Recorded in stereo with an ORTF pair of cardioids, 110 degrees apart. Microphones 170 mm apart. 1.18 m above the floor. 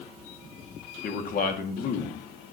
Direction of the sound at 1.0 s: 60° left.